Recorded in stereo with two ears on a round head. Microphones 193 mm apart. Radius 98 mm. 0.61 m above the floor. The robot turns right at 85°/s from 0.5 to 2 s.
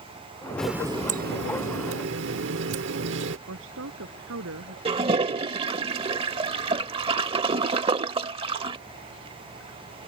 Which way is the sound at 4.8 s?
25° right (ahead or behind).